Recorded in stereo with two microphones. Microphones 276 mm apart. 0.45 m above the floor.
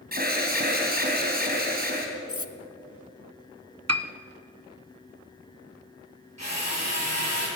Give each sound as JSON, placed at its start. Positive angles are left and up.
{"t": 0.1, "sound": "an alarm", "side_deg": -35, "distance_m": 3.0}
{"t": 2.3, "sound": "cutlery clinking", "side_deg": 55, "distance_m": 0.9}
{"t": 3.9, "sound": "a piano", "side_deg": -75, "distance_m": 0.7}
{"t": 6.4, "sound": "a drill", "side_deg": -75, "distance_m": 8.5}